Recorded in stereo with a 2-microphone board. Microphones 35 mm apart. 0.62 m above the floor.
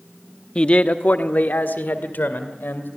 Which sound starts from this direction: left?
A man speaking, at 0.6 s.